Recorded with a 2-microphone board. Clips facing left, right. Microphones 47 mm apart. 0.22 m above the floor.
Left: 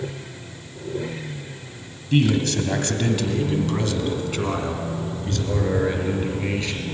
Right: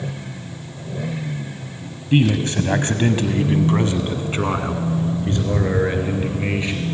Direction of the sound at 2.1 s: 20° right (ahead or behind).